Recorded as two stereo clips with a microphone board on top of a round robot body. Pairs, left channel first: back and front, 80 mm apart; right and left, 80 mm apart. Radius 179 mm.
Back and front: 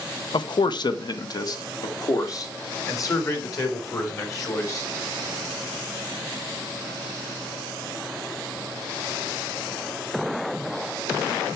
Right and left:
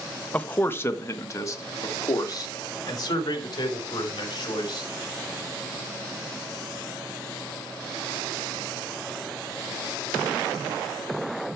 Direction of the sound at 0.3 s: 165° right.